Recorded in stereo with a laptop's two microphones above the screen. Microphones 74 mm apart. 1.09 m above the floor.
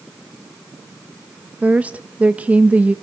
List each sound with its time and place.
1.6 s a woman speaking: 20° right (ahead or behind), 0.8 m